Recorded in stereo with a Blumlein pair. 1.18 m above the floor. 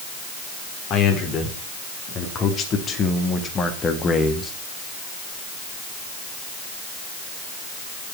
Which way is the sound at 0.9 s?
30° left.